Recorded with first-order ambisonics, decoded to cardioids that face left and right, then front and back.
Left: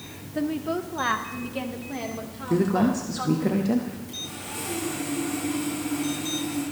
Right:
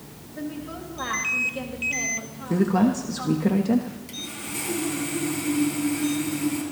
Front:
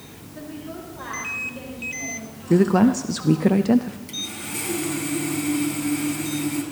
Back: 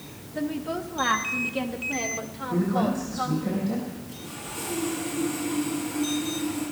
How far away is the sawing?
About 4.5 m.